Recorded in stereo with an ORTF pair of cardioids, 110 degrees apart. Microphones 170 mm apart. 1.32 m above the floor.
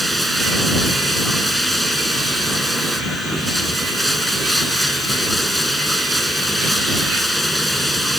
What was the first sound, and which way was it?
Running water, straight ahead.